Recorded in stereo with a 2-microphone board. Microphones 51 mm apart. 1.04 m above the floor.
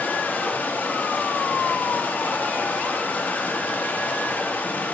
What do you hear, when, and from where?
0.0 s running water: 30° left (ahead or behind), 1.3 m